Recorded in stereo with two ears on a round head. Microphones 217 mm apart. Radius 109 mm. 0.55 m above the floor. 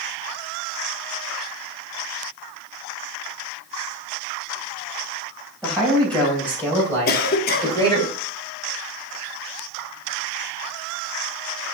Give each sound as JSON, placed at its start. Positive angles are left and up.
{"t": 5.6, "sound": "a man speaking", "side_deg": 5, "distance_m": 3.5}
{"t": 7.1, "sound": "a cough", "side_deg": 40, "distance_m": 0.9}